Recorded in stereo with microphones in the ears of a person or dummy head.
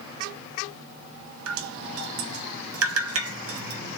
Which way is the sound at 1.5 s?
75° right (ahead or behind).